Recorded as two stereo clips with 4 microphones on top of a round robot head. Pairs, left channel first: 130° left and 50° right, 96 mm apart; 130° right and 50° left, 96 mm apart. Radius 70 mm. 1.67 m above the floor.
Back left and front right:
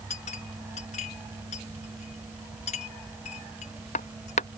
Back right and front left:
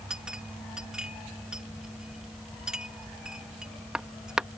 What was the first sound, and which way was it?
A clink, 135° left.